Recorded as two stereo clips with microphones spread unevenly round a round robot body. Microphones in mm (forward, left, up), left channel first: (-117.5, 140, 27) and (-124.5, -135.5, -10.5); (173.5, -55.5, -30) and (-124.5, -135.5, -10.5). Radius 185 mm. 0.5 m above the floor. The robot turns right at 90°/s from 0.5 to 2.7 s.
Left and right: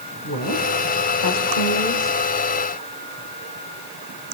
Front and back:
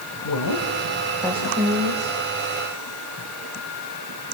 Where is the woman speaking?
30° left, 2.5 m; by 2.2 s 175° right, 2.5 m.